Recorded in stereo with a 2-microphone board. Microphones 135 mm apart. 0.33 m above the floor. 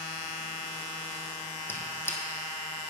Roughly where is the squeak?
Centre.